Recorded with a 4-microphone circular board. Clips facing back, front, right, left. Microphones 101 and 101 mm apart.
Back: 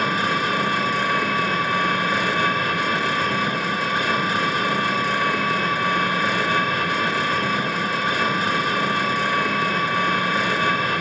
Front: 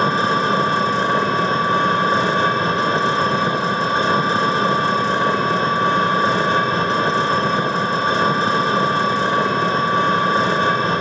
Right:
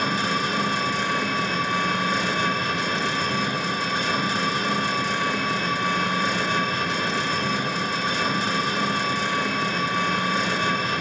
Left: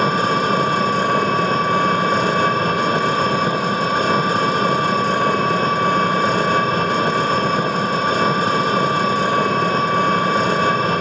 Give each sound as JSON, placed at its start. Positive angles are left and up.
{"t": 0.0, "sound": "an engine running", "azimuth_deg": 55, "distance_m": 1.5}